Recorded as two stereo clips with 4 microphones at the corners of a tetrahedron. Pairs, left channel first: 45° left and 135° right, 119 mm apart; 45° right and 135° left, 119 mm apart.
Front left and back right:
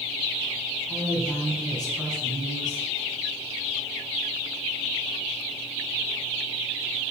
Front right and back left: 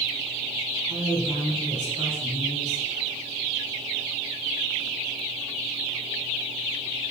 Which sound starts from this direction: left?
A woman speaking, at 0.9 s.